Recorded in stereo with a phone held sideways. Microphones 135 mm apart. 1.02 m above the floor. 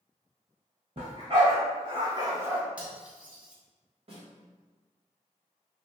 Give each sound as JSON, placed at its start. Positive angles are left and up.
{"t": 1.0, "sound": "a dog barking", "side_deg": -45, "distance_m": 1.5}
{"t": 2.8, "sound": "cutlery clinking", "side_deg": -10, "distance_m": 0.9}
{"t": 4.1, "sound": "a snare drum", "side_deg": -45, "distance_m": 1.3}